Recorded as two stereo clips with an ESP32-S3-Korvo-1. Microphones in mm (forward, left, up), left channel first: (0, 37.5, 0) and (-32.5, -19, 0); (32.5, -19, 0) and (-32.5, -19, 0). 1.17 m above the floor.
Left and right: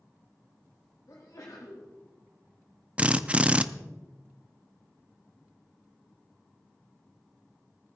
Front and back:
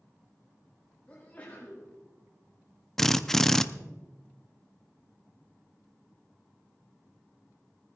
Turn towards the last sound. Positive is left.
turn(degrees=-75)